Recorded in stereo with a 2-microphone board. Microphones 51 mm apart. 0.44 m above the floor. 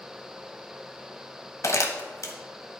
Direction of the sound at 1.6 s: 75° left (ahead or behind).